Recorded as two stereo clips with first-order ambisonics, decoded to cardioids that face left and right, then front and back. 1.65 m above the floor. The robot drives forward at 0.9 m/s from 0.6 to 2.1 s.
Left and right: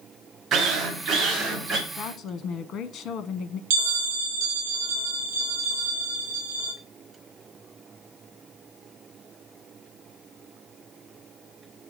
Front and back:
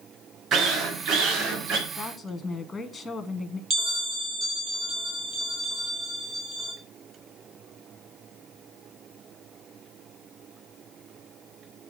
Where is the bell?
110° right, 1.9 m.